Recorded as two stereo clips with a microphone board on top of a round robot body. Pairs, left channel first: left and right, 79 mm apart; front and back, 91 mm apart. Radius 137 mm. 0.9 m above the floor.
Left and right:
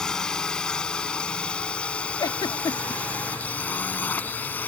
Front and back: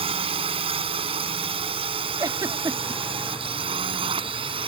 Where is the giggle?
130° left.